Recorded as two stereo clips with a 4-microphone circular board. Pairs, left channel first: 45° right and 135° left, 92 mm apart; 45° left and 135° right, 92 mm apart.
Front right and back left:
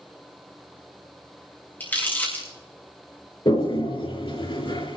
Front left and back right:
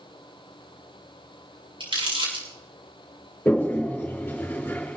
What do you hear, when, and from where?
1.8 s crumpling: 115° right, 7 m
3.5 s a toilet flushing: 25° right, 3.5 m